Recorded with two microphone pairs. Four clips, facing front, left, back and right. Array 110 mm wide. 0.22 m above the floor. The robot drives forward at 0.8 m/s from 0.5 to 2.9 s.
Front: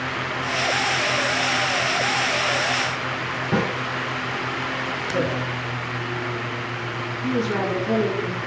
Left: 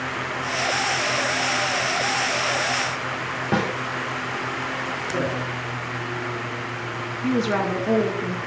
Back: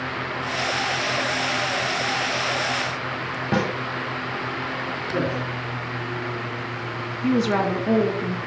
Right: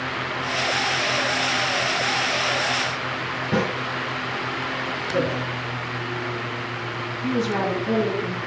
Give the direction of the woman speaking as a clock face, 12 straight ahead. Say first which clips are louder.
Left 1 dB, back 3 dB; 6 o'clock.